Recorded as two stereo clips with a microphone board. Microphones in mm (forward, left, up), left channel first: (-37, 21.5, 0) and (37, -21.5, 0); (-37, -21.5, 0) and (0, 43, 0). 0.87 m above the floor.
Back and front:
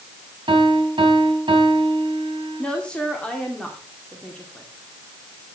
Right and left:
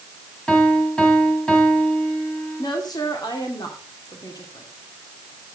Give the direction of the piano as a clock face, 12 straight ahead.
1 o'clock.